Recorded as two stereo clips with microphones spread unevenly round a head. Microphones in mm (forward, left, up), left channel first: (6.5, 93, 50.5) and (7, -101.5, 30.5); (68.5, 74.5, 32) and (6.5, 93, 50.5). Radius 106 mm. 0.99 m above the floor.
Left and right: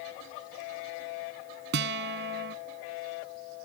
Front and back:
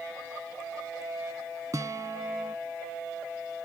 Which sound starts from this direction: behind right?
A guitar, at 1.7 s.